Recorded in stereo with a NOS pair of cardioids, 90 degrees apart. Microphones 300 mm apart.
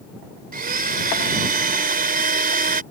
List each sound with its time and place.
0.5 s a blender: 30° right